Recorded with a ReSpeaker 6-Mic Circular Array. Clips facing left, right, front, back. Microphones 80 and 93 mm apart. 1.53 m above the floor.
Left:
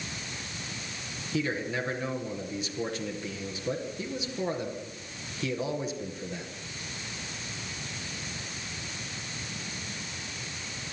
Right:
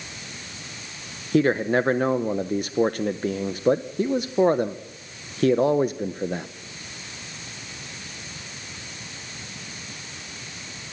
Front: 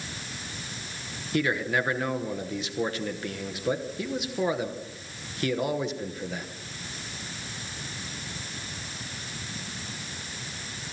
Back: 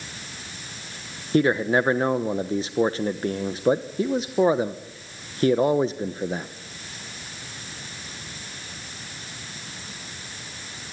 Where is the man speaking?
125° right, 1.0 m.